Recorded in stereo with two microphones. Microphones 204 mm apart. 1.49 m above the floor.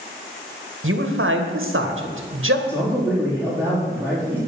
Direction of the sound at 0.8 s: 85° right.